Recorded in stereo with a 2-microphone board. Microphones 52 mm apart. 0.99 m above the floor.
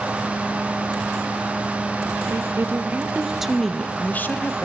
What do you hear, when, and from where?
2.3 s a woman speaking: 55° right (ahead or behind), 0.9 m; by 4.7 s 45° left (ahead or behind), 0.9 m